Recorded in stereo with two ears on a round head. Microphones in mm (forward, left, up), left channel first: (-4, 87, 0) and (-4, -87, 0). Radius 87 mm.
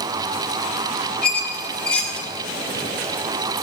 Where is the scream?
I don't hear a scream.